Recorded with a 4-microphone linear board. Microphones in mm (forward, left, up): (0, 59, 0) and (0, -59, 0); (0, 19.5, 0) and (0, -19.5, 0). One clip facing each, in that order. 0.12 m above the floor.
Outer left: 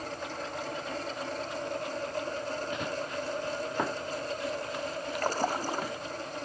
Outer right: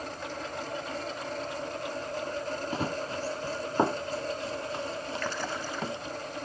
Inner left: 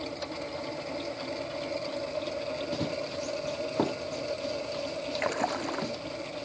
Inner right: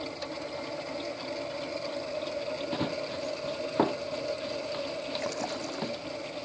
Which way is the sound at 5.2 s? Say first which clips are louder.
Outer left 8 dB, inner left 8 dB; 40° left (ahead or behind).